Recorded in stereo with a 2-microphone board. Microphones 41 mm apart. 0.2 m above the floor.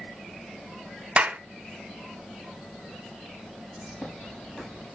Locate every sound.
1.2 s a clap: 25° right (ahead or behind), 1.2 m
3.8 s a bird: 20° left (ahead or behind), 6 m